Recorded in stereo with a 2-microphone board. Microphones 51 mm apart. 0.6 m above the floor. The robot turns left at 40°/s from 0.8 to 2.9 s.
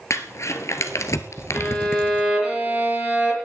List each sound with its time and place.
0.1 s crumpling: 70° left (ahead or behind), 1.6 m; by 2.3 s 40° left (ahead or behind), 1.6 m
1.5 s a violin: 20° left, 6 m; by 3.4 s 35° right, 6 m